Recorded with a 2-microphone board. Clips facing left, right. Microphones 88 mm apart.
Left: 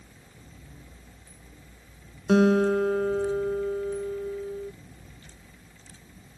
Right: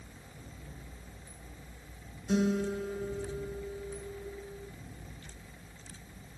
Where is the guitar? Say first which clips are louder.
Left 10 dB; 75° left (ahead or behind).